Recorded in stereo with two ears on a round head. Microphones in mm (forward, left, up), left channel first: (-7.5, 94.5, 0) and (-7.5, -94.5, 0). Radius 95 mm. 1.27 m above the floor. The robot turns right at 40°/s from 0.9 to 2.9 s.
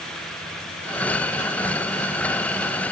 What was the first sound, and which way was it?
Only background noise.